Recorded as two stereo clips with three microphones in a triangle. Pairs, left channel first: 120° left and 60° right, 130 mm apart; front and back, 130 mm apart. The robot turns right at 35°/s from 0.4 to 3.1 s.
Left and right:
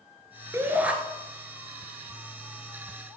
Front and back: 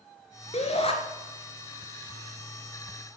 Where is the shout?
5° left, 2 m; by 0.9 s 20° left, 2 m.